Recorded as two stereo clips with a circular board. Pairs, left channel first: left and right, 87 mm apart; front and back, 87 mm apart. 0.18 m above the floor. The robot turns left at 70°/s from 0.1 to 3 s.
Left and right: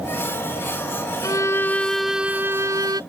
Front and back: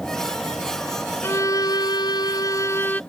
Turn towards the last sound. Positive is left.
turn(degrees=-70)